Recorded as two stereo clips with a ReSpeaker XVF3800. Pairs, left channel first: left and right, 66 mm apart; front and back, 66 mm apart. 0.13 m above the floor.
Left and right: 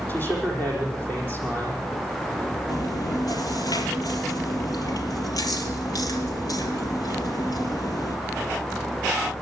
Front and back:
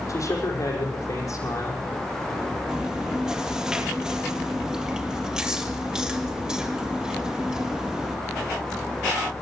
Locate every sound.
0.1 s a man speaking: 30° left, 6.5 m
2.7 s chewing: 100° left, 1.9 m